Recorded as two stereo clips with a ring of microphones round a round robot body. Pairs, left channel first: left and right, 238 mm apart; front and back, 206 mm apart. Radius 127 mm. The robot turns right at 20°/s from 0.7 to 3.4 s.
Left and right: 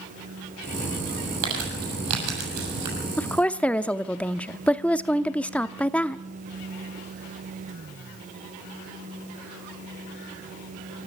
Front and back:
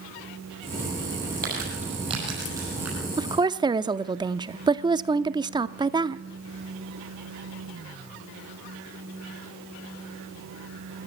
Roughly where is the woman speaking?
Behind.